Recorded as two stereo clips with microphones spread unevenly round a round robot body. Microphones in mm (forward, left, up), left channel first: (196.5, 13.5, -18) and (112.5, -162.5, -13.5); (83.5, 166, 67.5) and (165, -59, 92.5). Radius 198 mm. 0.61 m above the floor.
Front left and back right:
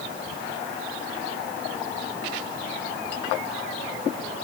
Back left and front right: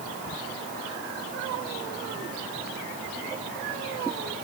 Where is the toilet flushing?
I don't hear a toilet flushing.